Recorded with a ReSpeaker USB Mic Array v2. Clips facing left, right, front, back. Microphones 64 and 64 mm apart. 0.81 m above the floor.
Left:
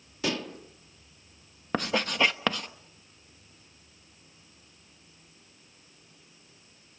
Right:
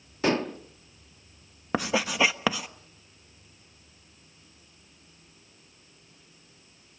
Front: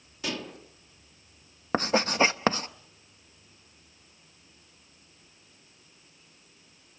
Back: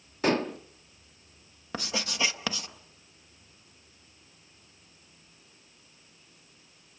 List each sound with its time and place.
0.2 s dishes clattering: 140° right, 0.9 m
1.7 s writing: 10° right, 0.8 m